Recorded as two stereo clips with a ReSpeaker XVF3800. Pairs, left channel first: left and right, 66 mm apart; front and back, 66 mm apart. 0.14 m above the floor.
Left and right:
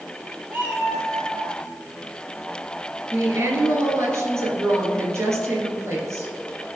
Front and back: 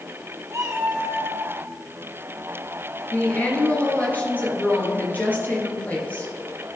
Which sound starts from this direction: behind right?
A cat meowing, at 0.5 s.